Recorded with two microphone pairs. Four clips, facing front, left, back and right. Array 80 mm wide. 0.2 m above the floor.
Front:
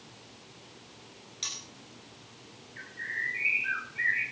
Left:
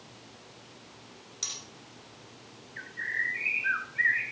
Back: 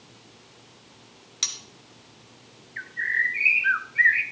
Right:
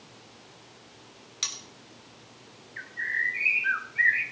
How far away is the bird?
About 0.9 m.